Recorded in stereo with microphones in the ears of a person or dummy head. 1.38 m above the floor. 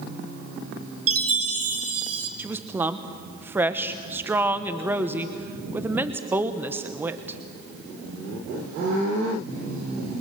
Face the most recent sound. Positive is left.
turn(degrees=-10)  # may be behind; listen again after turning